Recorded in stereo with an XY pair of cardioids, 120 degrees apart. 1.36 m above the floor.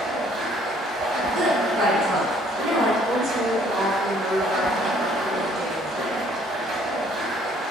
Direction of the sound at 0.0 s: 50° right.